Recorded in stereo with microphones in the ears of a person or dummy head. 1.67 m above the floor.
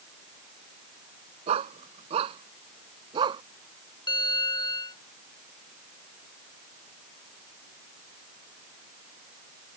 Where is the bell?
25° left (ahead or behind).